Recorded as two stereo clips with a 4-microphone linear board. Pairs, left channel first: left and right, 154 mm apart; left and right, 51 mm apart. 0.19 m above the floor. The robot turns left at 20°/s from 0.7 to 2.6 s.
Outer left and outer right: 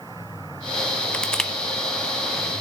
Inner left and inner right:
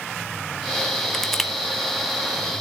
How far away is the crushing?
About 1.3 m.